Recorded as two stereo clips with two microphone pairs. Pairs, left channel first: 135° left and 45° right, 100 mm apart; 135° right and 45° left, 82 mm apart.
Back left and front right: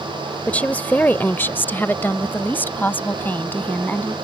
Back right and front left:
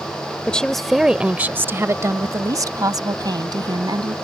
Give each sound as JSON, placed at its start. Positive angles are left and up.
{"t": 0.5, "sound": "a woman speaking", "azimuth_deg": 180}